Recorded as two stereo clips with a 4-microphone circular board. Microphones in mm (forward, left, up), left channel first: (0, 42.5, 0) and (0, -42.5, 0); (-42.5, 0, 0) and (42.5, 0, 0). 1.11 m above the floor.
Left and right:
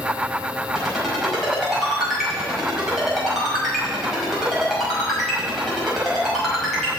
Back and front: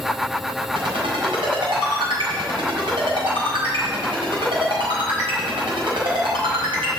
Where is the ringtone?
Straight ahead, 5 m.